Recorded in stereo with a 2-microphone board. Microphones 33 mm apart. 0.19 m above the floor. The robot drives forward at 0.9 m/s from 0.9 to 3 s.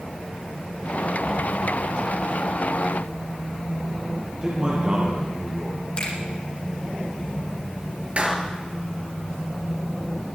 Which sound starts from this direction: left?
A finger snap, at 6.0 s.